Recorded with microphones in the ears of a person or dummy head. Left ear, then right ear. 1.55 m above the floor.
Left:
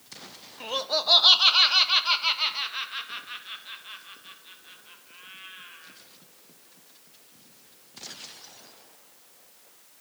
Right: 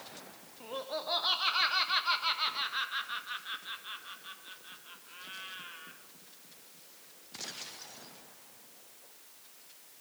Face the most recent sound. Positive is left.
turn(degrees=-15)  # may be behind; listen again after turning